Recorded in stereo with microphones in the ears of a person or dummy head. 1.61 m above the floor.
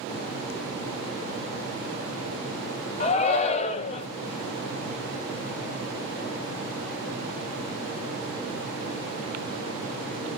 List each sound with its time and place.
3.0 s a shout: 40° left (ahead or behind), 0.7 m